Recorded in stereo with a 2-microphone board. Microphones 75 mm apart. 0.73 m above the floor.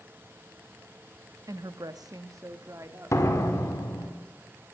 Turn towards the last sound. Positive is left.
turn(degrees=40)  # may be behind; listen again after turning